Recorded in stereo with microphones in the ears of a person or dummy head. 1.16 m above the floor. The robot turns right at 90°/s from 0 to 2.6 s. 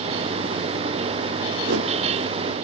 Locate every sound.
1.6 s a whoosh: 55° right (ahead or behind), 1.3 m; by 1.9 s 75° right (ahead or behind), 1.3 m